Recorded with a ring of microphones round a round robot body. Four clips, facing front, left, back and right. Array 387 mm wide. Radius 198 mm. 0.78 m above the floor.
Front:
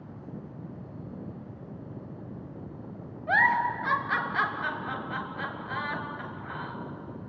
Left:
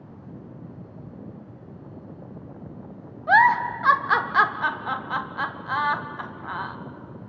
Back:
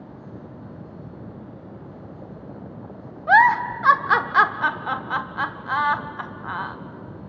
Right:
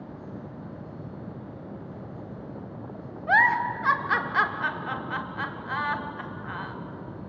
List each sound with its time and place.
3.3 s a giggle: 160° left, 1.0 m